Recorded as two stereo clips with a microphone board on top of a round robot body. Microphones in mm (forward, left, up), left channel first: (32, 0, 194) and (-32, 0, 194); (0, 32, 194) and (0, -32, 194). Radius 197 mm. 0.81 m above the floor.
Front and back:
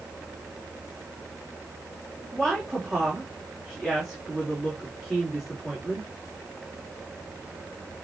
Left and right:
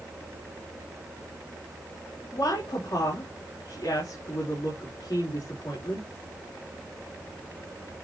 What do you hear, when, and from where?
2.3 s a woman speaking: 85° left, 4 m